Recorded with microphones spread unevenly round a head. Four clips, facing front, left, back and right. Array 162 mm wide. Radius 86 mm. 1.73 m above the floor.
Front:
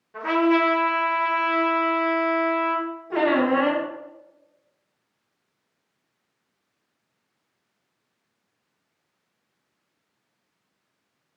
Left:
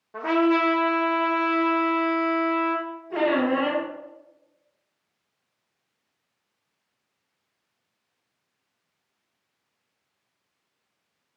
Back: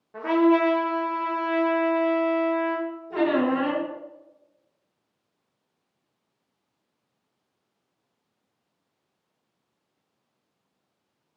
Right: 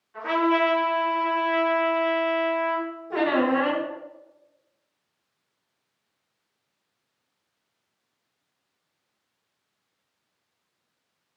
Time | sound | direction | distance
0.1 | a trumpet | 115° left | 0.6 m
3.1 | a squeak | 40° right | 1.0 m